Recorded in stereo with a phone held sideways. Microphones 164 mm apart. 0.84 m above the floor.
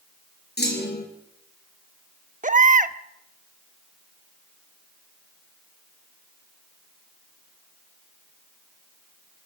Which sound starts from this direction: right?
A baby crying, at 2.4 s.